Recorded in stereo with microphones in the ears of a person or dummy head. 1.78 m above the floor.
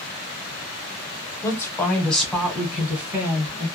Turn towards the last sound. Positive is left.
turn(degrees=-15)  # may be behind; listen again after turning